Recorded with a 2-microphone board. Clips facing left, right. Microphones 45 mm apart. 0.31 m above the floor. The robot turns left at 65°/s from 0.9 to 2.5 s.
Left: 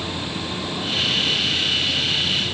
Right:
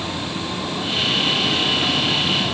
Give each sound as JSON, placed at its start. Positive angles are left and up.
{"t": 0.0, "sound": "a vehicle", "azimuth_deg": -20}